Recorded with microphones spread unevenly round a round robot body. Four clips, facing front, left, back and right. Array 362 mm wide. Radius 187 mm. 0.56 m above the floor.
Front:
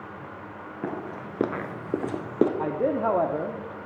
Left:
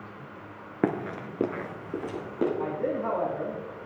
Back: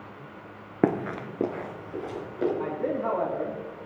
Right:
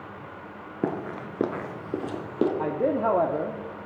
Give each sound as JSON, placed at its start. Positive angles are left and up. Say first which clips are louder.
{"t": 0.8, "sound": "running footsteps", "louder": "left 1 dB, back 8 dB", "azimuth_deg": 165, "distance_m": 0.6}
{"t": 2.6, "sound": "a man speaking", "louder": "right 4 dB, front 4 dB", "azimuth_deg": -50, "distance_m": 0.9}